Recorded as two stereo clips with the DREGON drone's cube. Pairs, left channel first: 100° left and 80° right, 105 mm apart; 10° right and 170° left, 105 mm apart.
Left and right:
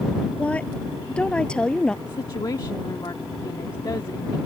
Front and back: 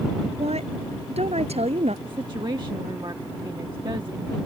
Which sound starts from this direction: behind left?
A woman speaking, at 2.0 s.